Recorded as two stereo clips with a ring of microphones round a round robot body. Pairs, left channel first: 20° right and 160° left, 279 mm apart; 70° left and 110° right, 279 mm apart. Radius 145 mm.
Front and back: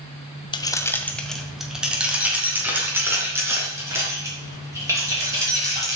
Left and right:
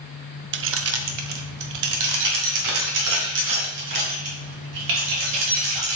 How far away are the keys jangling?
About 0.9 m.